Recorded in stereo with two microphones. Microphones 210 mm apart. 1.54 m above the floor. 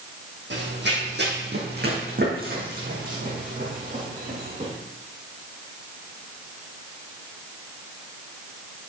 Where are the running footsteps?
60° right (ahead or behind), 3 m; by 4.7 s 35° right (ahead or behind), 5 m.